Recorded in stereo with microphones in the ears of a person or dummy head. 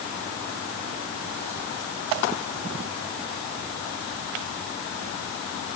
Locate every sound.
Only background noise.